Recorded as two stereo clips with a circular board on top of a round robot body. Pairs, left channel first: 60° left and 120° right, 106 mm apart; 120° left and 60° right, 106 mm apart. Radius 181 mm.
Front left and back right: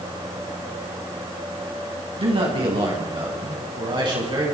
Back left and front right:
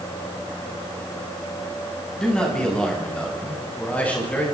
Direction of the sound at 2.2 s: 160° right.